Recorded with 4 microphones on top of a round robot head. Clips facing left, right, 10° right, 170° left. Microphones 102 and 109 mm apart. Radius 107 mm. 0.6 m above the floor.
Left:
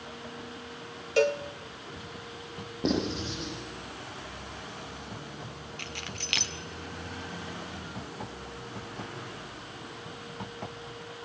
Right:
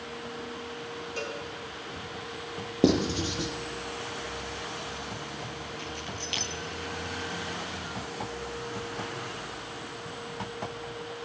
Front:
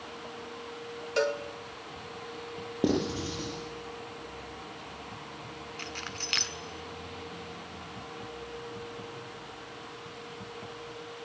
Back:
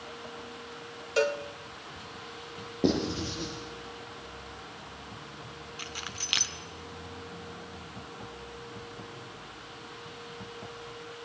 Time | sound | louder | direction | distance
1.2 | a cowbell | left 13 dB, back 1 dB | 85° left | 1.7 m
2.8 | writing | right 5 dB, even | 90° right | 9 m
5.8 | keys jangling | right 4 dB, front 2 dB | 90° left | 1.7 m